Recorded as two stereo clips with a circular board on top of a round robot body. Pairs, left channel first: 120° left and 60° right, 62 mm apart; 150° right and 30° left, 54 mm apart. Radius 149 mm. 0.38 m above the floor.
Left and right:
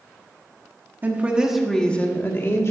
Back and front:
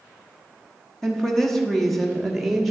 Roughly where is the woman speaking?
Right.